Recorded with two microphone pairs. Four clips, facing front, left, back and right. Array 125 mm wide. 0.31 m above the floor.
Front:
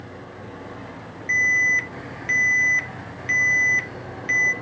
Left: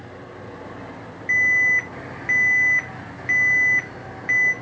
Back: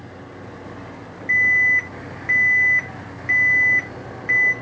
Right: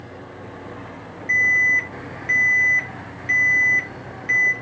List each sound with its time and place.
1.3 s an alarm: 120° left, 0.8 m